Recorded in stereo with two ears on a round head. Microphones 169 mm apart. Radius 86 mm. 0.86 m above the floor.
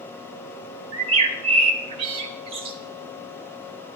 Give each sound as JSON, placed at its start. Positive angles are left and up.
{"t": 0.9, "sound": "a bird", "side_deg": -30, "distance_m": 1.1}